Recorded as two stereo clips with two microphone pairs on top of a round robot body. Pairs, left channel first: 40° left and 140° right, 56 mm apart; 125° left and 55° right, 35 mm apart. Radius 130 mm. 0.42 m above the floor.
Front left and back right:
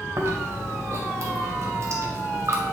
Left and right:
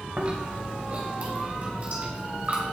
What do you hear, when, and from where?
0.2 s chewing: 105° right, 2 m